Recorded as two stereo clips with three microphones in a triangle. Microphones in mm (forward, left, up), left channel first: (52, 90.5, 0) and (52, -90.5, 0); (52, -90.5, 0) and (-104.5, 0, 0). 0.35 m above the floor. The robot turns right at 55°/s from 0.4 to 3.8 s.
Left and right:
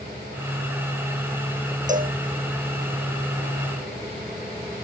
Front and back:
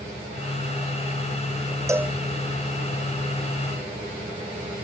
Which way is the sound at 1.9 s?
135° right.